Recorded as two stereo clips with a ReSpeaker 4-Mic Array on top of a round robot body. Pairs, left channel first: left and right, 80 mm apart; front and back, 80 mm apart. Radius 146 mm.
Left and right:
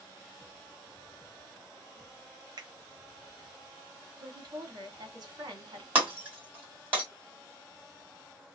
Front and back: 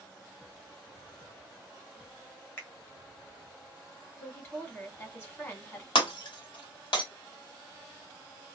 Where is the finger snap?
60° right, 1.3 m.